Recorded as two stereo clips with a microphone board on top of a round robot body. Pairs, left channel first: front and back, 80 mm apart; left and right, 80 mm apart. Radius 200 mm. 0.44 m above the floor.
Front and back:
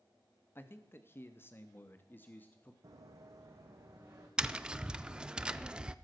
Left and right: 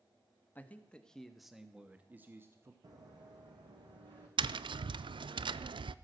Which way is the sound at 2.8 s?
130° right.